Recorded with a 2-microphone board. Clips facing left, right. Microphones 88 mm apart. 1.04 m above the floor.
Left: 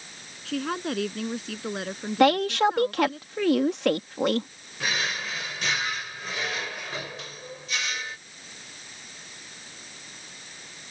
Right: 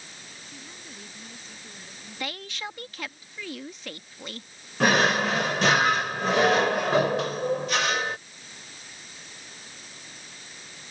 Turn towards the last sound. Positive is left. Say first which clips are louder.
# right 10 dB
turn(degrees=-65)  # may be behind; listen again after turning